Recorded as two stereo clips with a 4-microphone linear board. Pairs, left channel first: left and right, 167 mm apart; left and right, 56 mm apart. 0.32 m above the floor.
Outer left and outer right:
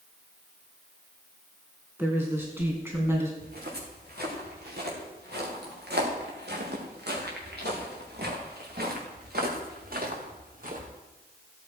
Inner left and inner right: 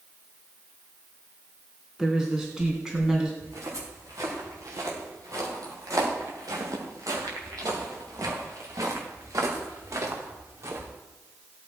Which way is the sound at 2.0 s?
10° right (ahead or behind).